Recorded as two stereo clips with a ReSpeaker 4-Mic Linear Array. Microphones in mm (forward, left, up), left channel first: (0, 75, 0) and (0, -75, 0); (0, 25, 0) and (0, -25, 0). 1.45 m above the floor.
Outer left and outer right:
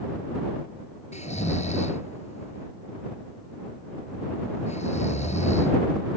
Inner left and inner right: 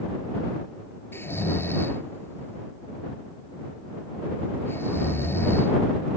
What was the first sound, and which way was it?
Snoring, 50° left (ahead or behind).